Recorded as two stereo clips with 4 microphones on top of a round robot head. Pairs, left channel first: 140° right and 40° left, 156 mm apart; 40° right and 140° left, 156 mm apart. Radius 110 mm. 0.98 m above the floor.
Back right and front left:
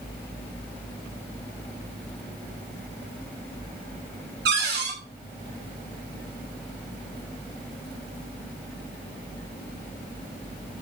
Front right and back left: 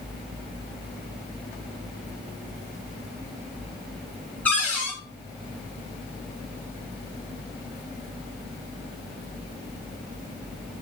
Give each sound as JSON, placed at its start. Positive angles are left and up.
{"t": 4.5, "sound": "a cupboard door", "azimuth_deg": 40, "distance_m": 2.0}